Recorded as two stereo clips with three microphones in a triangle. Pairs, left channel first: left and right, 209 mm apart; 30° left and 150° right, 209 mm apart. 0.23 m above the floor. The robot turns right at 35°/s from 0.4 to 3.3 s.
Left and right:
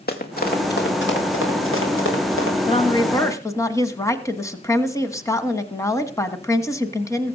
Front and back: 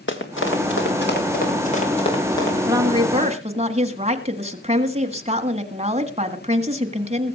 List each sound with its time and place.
0.1 s running footsteps: 50° left, 2.5 m; by 2.6 s 110° left, 4.5 m
2.7 s a woman speaking: 140° left, 1.5 m; by 7.3 s 160° left, 1.5 m